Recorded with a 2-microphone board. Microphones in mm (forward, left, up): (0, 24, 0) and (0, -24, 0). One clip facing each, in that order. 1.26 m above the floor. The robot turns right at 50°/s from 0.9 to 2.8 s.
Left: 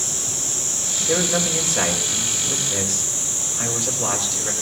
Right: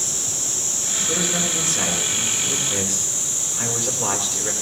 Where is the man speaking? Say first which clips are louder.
Left 4 dB; 120° left, 3.5 m; by 4.5 s 155° right, 3.5 m.